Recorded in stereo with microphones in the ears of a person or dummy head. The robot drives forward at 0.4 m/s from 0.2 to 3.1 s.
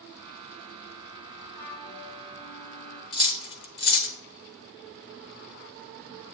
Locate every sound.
1.6 s a flute: 15° left (ahead or behind), 3 m; by 3.0 s 20° left (ahead or behind), 2.5 m
3.1 s cutlery clinking: 30° left (ahead or behind), 0.6 m